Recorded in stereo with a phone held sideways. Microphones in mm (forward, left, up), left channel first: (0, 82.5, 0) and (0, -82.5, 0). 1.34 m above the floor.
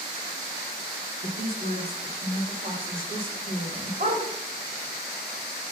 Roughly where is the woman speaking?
Right.